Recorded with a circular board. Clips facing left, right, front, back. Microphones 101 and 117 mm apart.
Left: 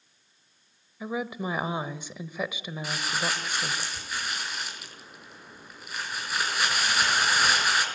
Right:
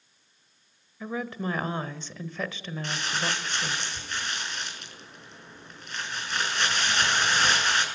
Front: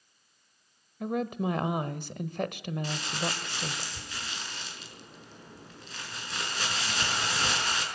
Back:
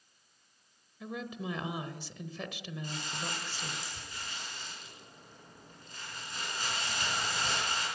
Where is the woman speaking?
10° left, 1.4 m.